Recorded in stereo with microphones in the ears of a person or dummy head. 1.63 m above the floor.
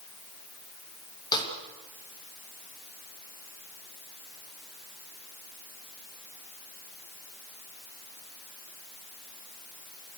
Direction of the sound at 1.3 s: 25° left (ahead or behind).